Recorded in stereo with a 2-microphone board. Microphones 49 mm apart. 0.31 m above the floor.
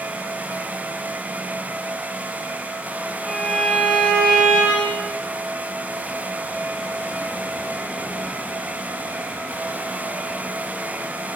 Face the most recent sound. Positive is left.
turn(degrees=5)  # may be behind; listen again after turning